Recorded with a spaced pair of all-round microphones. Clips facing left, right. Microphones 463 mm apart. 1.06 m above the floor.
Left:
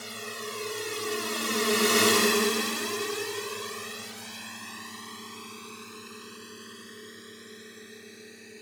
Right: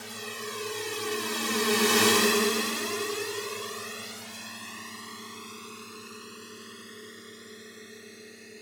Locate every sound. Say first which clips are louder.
0.0 s a drone: even; centre (ahead or behind)